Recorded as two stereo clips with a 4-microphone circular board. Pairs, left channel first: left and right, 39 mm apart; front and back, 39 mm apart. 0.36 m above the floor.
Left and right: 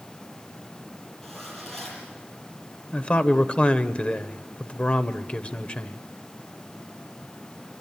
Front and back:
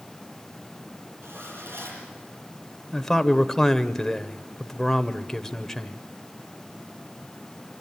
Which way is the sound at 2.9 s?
70° left.